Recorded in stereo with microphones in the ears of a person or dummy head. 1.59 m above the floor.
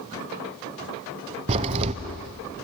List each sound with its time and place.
1.5 s a crack: 30° right (ahead or behind), 0.7 m